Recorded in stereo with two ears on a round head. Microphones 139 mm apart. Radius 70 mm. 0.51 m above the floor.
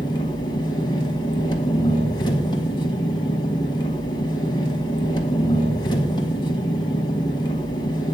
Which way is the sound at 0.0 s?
30° left (ahead or behind).